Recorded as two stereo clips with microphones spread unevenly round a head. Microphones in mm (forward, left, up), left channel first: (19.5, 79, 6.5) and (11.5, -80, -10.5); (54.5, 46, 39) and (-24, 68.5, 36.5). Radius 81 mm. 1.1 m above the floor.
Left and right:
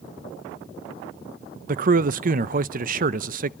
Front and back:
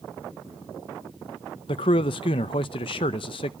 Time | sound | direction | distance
1.7 | a man speaking | 55° right | 0.5 m